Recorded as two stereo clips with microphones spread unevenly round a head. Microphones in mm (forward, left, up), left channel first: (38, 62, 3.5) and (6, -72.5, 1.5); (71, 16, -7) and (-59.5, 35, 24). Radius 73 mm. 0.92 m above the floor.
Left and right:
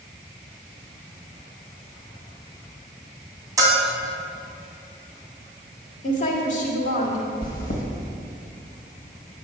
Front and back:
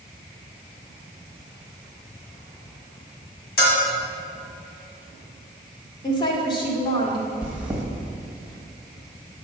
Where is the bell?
40° right, 2 m.